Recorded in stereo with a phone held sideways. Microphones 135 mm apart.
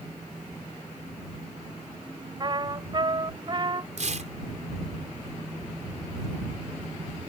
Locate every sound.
2.4 s a trumpet: 35° right (ahead or behind)
4.0 s tearing paper: 60° right (ahead or behind)